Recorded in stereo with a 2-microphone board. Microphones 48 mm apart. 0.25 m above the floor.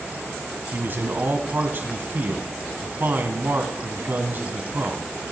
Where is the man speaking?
45° right (ahead or behind), 2 m.